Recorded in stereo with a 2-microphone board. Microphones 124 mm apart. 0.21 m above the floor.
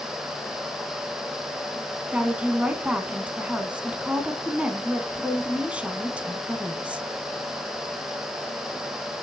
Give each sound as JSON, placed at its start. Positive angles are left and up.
{"t": 2.1, "sound": "a woman speaking", "side_deg": -10, "distance_m": 1.9}